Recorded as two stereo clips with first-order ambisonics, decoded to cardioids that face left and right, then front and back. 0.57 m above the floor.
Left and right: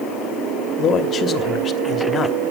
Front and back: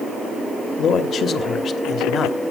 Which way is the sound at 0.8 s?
40° left.